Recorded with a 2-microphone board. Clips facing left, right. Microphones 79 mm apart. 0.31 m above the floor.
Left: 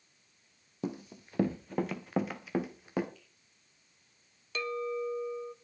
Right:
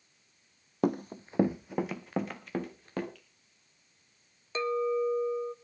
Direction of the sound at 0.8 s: 60° right (ahead or behind).